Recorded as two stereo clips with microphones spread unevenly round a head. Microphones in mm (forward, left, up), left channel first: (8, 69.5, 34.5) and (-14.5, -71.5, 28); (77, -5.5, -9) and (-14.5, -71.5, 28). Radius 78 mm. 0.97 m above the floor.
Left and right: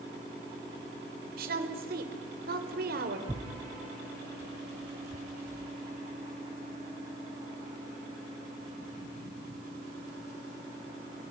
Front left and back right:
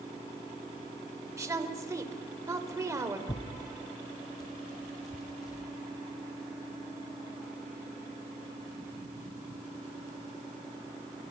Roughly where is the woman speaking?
Right.